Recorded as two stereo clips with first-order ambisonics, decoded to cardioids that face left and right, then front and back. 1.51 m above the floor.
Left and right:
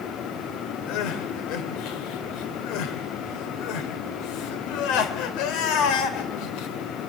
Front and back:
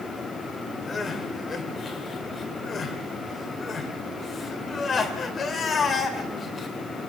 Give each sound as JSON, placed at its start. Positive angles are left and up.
{"t": 0.9, "sound": "crying", "azimuth_deg": 70, "distance_m": 2.5}